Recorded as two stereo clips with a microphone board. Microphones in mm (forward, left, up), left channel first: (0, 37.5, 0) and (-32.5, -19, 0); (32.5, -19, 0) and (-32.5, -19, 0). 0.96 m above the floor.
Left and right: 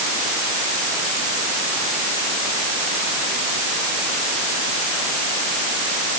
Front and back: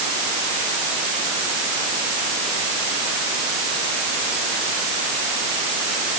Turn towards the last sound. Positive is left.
No sound to turn to.